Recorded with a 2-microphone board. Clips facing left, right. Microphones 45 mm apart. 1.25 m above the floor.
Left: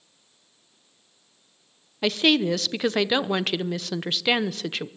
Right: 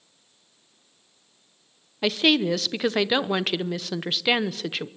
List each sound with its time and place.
2.0 s a woman speaking: centre (ahead or behind), 0.7 m